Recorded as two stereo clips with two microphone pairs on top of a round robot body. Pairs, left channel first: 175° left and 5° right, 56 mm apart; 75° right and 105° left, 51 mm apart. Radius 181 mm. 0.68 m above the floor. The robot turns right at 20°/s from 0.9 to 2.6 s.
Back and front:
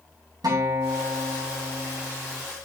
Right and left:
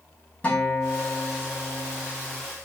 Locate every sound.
0.4 s a guitar: 15° right, 4.5 m; by 2.4 s 15° left, 4.5 m